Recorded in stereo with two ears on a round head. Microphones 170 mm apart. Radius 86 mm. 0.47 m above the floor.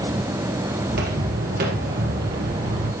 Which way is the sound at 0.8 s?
60° right (ahead or behind).